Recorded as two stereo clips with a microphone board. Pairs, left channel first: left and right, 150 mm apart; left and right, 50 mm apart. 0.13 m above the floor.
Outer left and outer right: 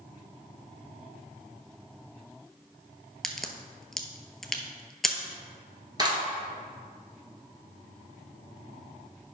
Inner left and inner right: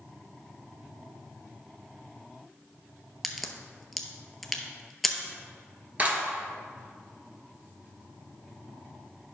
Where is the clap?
30° right (ahead or behind), 1.4 m.